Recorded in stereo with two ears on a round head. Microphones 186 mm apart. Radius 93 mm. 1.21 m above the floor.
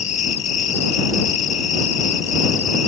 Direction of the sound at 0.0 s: 35° left (ahead or behind).